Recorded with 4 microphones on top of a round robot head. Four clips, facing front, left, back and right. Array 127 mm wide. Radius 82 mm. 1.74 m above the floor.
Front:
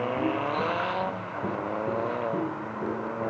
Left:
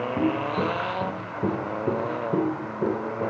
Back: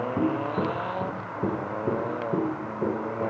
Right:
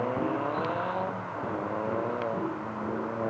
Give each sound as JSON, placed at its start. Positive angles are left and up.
{"t": 0.2, "sound": "footsteps", "azimuth_deg": 150, "distance_m": 2.5}